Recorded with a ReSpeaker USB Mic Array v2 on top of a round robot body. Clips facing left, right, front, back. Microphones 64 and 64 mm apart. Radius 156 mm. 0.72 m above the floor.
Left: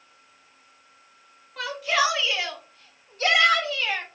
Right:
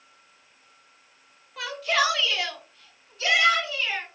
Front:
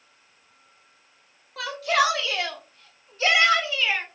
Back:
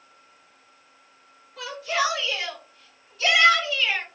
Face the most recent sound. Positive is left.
turn(degrees=70)